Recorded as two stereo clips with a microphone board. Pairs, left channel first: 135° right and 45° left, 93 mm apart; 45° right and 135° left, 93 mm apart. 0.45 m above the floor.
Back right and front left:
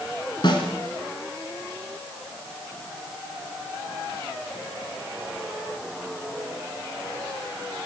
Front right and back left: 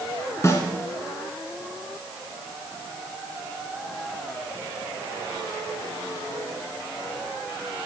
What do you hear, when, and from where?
0.4 s a snare drum: 105° right, 1.5 m